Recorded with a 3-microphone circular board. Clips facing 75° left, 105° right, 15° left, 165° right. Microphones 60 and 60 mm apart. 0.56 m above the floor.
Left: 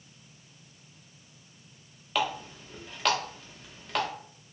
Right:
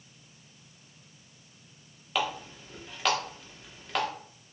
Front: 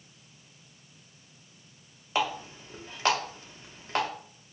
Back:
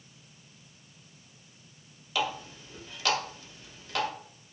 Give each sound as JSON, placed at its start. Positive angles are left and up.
{"t": 2.1, "sound": "a running tap", "azimuth_deg": -15, "distance_m": 0.7}